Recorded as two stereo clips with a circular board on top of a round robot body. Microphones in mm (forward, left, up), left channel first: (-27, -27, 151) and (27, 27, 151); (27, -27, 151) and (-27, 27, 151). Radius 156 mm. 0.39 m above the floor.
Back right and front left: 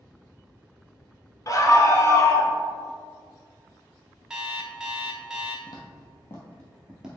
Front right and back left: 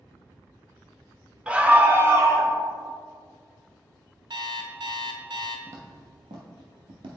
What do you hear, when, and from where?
1.5 s a scream: 155° right, 1.3 m; by 2.5 s 175° left, 1.5 m
4.3 s an alarm clock: 125° left, 1.0 m
5.7 s footsteps: 175° right, 0.9 m; by 7.2 s 120° left, 0.6 m